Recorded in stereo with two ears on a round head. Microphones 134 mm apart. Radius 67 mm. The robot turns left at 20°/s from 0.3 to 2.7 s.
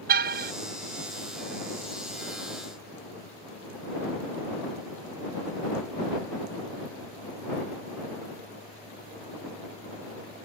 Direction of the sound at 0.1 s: 70° right (ahead or behind).